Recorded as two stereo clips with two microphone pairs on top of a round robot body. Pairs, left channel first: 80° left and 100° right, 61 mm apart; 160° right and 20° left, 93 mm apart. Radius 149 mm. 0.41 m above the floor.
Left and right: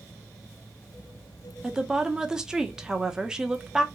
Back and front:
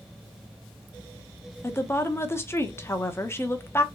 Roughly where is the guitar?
I don't hear a guitar.